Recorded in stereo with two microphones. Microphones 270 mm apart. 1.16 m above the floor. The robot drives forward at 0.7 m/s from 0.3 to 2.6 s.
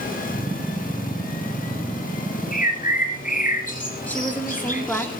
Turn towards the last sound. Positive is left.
turn(degrees=5)  # may be behind; listen again after turning